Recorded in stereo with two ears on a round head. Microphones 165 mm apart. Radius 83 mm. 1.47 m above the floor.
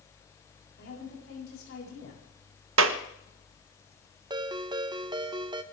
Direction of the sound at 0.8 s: 65° left (ahead or behind).